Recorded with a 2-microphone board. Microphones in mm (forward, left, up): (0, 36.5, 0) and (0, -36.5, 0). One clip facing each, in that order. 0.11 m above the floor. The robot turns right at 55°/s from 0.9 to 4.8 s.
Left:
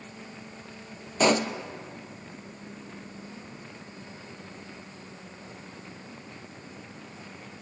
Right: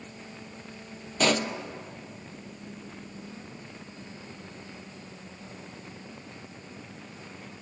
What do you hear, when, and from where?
1.2 s a pop: 20° left (ahead or behind), 0.5 m; by 1.5 s 35° left (ahead or behind), 0.5 m